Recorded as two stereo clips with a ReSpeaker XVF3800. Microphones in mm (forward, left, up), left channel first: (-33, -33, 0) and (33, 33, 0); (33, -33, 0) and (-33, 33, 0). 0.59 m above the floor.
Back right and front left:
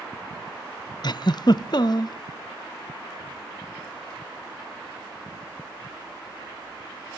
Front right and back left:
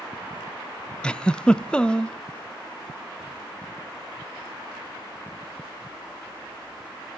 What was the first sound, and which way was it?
A giggle, 125° right.